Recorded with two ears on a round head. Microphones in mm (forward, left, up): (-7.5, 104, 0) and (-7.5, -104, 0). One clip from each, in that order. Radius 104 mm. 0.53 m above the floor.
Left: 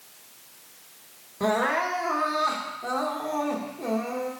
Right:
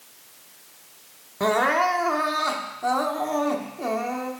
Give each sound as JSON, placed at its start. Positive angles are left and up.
{"t": 1.4, "sound": "crying", "side_deg": -30, "distance_m": 0.8}